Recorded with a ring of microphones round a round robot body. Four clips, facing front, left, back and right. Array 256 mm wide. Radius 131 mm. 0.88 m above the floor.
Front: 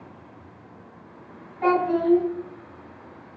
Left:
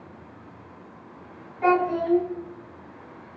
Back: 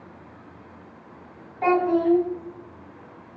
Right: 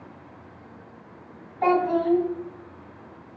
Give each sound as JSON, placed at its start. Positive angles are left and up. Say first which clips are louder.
{"t": 1.6, "sound": "a child speaking", "louder": "even, back 1 dB", "azimuth_deg": -110, "distance_m": 4.0}